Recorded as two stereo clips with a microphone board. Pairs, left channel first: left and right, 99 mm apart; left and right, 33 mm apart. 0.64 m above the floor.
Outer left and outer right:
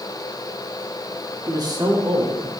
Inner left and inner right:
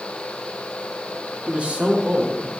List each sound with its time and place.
1.5 s a man speaking: 35° right (ahead or behind), 0.9 m; by 2.6 s 55° right (ahead or behind), 2 m